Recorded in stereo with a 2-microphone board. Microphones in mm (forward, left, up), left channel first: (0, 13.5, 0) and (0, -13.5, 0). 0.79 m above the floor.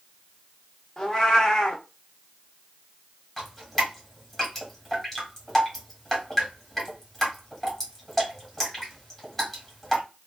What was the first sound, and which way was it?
A cat meowing, 25° left (ahead or behind).